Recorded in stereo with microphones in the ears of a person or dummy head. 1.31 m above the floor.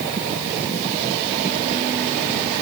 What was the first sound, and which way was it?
Only background noise.